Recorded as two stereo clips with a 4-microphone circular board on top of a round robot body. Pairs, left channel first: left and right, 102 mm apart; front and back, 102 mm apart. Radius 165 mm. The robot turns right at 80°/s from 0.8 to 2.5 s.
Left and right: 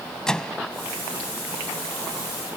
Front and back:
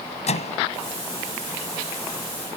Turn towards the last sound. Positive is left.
turn(degrees=145)